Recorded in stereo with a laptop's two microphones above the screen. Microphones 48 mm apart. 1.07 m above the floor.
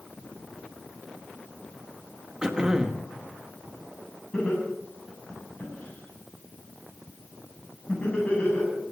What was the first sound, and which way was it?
Throat clearing, 15° right (ahead or behind).